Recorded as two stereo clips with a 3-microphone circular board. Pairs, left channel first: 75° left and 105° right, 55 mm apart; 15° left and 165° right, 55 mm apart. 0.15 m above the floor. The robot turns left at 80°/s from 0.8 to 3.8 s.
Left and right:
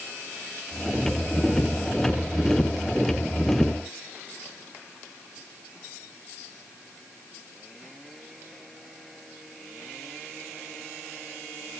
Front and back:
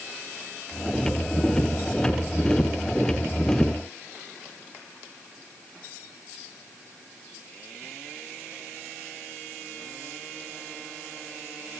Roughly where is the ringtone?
No ringtone in this recording.